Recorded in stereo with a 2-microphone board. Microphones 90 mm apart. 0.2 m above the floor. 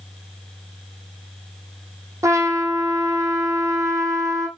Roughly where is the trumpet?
Right.